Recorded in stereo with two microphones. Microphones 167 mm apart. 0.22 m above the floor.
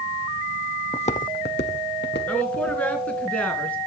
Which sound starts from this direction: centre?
A woman speaking, at 2.3 s.